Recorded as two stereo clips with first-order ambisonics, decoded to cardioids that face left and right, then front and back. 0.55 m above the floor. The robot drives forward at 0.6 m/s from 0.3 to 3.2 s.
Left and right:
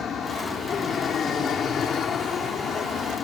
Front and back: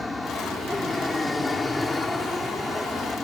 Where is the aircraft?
70° left; by 3.2 s 75° left.